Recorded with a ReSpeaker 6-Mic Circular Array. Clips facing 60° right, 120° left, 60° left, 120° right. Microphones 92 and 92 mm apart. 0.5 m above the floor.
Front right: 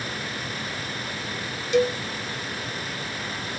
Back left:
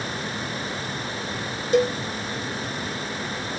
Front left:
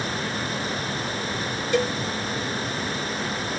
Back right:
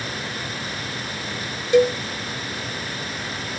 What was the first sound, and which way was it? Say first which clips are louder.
A cowbell: back left 1 dB, back right 8 dB; 170° left.